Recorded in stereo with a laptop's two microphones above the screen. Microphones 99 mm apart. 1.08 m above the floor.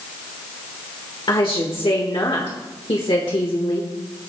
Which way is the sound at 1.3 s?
60° left (ahead or behind).